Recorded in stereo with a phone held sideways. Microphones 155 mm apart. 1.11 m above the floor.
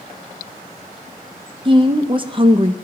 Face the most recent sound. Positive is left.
turn(degrees=-35)  # may be behind; listen again after turning